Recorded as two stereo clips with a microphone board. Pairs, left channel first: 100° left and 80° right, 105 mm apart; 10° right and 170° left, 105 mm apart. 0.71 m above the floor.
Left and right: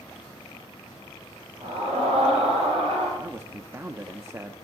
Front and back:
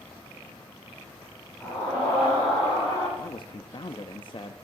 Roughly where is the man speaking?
Ahead.